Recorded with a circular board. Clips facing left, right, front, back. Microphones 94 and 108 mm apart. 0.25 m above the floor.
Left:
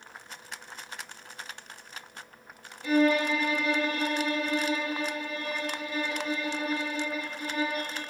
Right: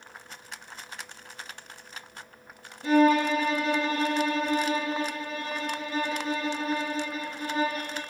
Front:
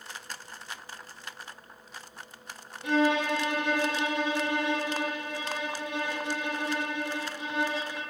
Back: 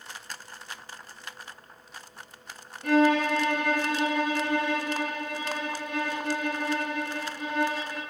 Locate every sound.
2.8 s a violin: 145° right, 1.1 m